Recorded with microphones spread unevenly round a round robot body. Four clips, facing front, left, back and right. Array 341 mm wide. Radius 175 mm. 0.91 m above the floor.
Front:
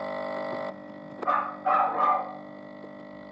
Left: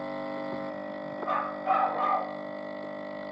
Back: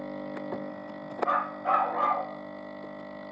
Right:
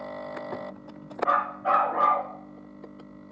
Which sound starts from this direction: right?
A dog barking, at 1.2 s.